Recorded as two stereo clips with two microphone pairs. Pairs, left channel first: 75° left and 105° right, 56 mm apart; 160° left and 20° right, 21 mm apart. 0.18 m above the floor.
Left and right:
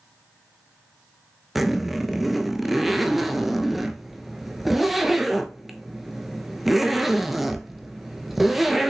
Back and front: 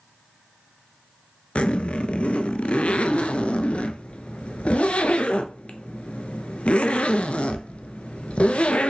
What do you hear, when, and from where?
1.6 s a zipper: 170° left, 0.5 m